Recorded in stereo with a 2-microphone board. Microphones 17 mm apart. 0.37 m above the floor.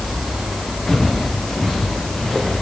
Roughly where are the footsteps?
Centre.